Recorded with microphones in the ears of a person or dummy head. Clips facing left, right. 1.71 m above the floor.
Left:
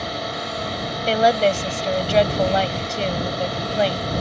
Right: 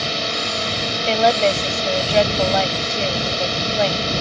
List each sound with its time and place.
0.0 s a drone: 35° right (ahead or behind)
1.1 s a woman speaking: 5° left (ahead or behind)